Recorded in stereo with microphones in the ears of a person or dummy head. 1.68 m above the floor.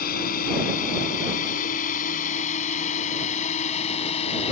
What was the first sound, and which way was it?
A drone, 50° left (ahead or behind).